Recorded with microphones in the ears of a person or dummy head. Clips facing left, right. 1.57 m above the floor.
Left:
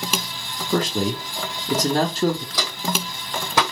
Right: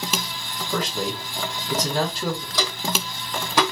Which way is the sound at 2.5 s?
55° left (ahead or behind).